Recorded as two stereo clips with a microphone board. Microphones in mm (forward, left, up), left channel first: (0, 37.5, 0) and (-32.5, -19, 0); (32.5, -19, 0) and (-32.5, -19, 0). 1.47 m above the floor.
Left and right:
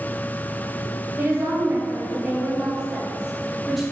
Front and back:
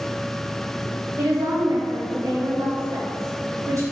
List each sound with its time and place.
1.2 s a woman speaking: 170° right, 2.5 m; by 3.8 s 150° left, 3.5 m